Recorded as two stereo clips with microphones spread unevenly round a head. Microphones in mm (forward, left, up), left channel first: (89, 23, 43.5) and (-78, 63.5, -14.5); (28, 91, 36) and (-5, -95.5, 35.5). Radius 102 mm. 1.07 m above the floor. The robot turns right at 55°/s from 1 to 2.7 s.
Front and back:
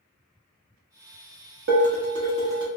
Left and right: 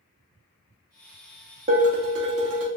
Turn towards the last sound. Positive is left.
turn(degrees=-110)